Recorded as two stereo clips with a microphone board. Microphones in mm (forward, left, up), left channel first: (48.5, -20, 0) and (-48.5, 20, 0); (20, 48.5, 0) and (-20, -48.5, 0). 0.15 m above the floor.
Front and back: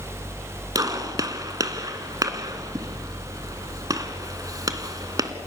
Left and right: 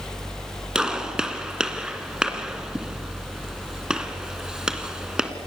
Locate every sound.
0.8 s a gunshot: 170° left, 2.0 m